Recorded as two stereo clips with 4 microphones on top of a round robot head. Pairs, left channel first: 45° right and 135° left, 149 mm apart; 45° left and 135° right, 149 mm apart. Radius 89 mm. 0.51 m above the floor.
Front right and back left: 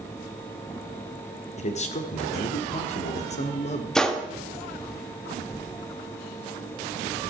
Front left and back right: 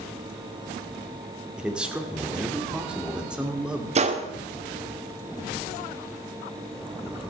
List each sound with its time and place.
1.6 s a man speaking: 55° right, 1.8 m
4.0 s a gunshot: 130° right, 1.5 m